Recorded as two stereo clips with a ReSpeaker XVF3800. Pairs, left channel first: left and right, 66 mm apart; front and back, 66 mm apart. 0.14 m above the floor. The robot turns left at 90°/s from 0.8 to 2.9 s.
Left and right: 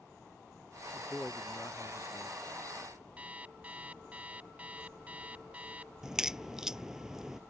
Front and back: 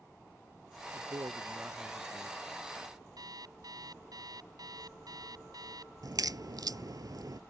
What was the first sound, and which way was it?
A man speaking, 175° right.